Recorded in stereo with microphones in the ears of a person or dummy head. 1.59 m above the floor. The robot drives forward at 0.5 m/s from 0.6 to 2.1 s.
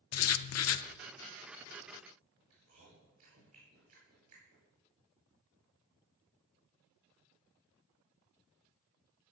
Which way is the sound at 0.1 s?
75° left (ahead or behind).